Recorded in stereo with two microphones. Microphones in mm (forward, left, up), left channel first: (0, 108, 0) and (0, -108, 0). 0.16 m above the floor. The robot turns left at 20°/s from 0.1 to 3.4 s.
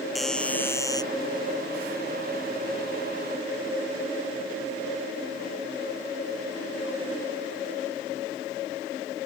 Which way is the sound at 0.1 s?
Centre (ahead or behind).